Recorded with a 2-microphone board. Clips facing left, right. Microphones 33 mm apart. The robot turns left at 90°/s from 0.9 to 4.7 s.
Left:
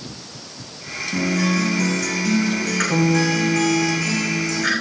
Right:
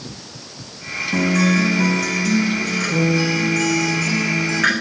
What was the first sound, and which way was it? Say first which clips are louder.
A guitar: right 3 dB; 90° right.